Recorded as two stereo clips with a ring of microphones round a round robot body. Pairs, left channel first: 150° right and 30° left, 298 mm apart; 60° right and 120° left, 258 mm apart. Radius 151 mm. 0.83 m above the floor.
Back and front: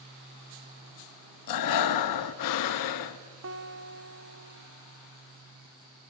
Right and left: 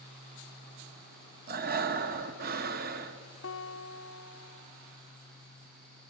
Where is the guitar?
15° right, 1.0 m.